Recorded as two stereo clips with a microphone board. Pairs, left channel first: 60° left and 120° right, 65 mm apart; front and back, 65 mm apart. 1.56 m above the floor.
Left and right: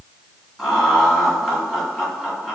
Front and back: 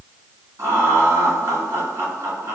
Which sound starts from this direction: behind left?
Laughter, at 0.6 s.